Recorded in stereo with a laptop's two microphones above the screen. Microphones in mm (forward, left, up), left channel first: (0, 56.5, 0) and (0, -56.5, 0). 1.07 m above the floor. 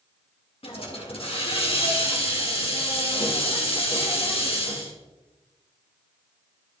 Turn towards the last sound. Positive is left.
turn(degrees=65)  # may be behind; listen again after turning